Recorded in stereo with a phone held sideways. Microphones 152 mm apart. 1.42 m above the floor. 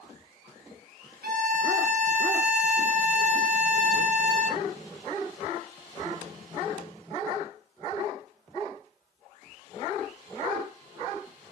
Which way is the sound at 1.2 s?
70° right (ahead or behind).